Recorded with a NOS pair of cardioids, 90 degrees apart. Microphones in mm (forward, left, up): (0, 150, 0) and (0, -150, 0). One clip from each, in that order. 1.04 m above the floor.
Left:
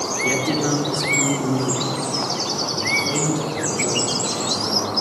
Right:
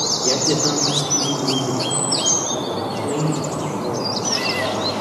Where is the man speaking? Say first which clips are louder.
Even; 15° left, 2.0 m.